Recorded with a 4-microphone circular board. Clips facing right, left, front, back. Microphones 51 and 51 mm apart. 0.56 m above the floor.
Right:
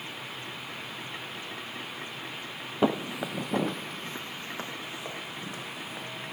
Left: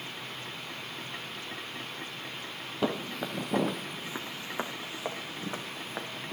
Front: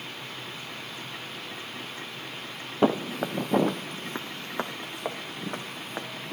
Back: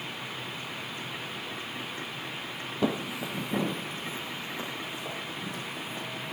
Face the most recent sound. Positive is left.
turn(degrees=35)